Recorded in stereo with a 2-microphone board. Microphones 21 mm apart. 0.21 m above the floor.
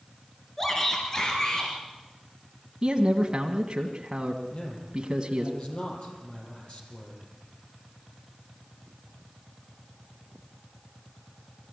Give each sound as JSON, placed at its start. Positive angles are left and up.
{"t": 0.6, "sound": "a shout", "side_deg": 15, "distance_m": 3.0}
{"t": 2.8, "sound": "a man speaking", "side_deg": -35, "distance_m": 1.6}
{"t": 4.5, "sound": "a man speaking", "side_deg": 50, "distance_m": 6.0}